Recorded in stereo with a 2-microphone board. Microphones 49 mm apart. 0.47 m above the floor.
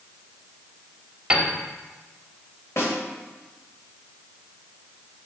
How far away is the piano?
About 1.2 m.